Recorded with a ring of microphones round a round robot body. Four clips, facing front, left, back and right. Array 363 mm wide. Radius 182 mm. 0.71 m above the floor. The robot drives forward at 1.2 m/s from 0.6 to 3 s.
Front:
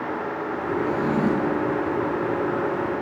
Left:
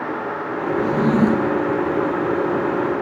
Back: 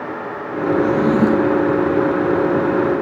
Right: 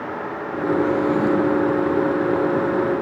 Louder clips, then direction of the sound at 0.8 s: Left 3 dB, back 7 dB; 130° left.